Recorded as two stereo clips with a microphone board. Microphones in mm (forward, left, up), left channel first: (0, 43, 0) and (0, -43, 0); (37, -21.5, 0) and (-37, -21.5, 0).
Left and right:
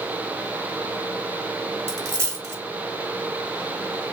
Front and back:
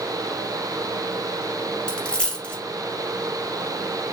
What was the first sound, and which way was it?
A dropped coin, 75° right.